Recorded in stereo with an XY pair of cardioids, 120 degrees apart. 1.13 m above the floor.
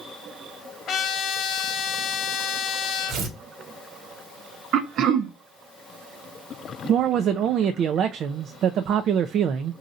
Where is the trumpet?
55° left, 1.0 m.